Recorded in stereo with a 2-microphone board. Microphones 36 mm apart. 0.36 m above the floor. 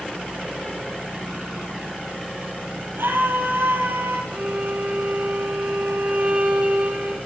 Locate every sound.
3.0 s a scream: 85° right, 9.5 m; by 4.2 s 80° right, 8 m
4.3 s a violin: 55° right (ahead or behind), 7 m